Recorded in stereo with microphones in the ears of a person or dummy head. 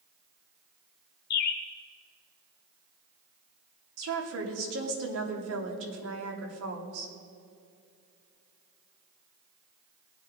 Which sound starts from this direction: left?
A bird, at 1.3 s.